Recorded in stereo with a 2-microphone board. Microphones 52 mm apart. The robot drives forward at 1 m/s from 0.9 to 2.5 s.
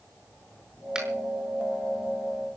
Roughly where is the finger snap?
Centre.